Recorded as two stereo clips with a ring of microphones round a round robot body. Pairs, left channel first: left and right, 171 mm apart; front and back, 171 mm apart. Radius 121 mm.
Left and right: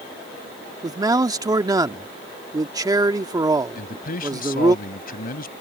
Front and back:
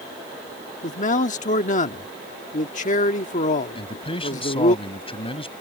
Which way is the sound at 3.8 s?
55° left.